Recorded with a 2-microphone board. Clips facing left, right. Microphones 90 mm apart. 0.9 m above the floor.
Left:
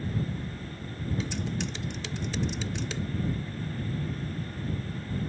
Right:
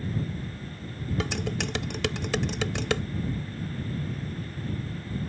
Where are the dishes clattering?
85° right.